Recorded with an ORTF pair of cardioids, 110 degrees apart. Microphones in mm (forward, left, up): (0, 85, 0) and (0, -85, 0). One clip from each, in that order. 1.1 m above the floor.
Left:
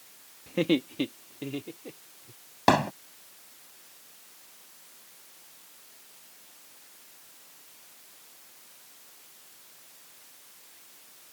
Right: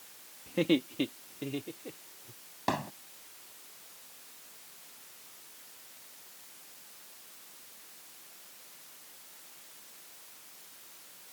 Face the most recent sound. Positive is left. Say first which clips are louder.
# left 11 dB
turn(degrees=60)